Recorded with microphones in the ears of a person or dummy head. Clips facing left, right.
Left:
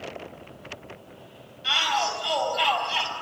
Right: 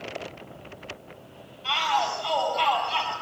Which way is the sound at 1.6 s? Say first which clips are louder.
Right 1 dB; 15° left (ahead or behind).